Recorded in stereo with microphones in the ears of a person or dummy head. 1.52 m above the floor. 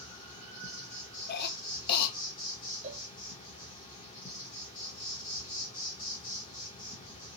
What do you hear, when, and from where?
0.0 s an insect: 20° left (ahead or behind), 0.9 m
1.3 s a cough: 55° left (ahead or behind), 0.7 m
2.8 s a cowbell: 35° right (ahead or behind), 1.2 m